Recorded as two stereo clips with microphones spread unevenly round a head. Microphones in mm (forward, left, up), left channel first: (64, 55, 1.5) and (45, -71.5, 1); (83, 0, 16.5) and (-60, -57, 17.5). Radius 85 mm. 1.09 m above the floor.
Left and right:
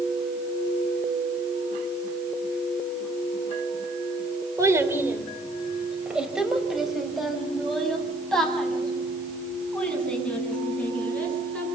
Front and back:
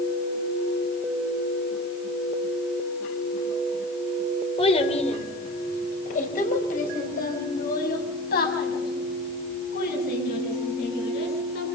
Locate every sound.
4.6 s a child speaking: 30° right, 2.5 m; by 11.6 s straight ahead, 9 m